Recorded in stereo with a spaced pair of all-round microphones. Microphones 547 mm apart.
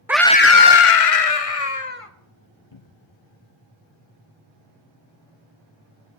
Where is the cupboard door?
55° left (ahead or behind), 1.0 m.